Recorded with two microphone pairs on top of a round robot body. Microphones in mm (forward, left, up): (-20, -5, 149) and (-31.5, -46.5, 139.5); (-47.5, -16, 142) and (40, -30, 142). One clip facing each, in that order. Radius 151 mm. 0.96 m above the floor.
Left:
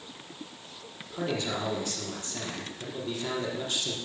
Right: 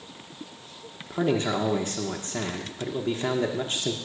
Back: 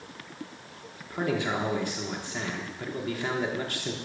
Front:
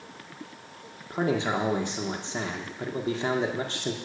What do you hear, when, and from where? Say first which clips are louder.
1.1 s a man speaking: right 6 dB, front 2 dB; 70° right, 1.3 m